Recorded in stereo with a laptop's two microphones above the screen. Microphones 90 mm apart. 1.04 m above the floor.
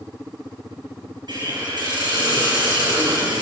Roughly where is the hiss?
Right.